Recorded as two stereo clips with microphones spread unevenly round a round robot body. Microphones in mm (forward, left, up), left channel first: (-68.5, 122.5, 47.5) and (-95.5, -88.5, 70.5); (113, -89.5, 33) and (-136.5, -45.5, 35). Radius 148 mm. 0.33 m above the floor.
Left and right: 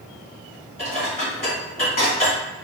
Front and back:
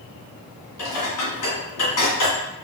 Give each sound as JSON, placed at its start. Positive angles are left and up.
{"t": 0.8, "sound": "dishes clattering", "azimuth_deg": 20, "distance_m": 2.0}